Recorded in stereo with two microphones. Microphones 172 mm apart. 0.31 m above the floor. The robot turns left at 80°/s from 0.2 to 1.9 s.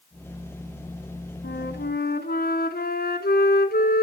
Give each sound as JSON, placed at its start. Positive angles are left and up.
{"t": 1.4, "sound": "a flute", "azimuth_deg": 100, "distance_m": 0.9}